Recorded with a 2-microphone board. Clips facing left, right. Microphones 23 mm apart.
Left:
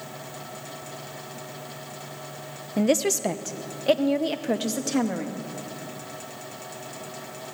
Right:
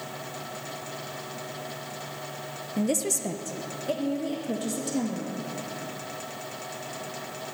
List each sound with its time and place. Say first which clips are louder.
2.8 s a woman speaking: left 5 dB; 30° left (ahead or behind), 0.8 m; by 5.3 s 60° left (ahead or behind), 2 m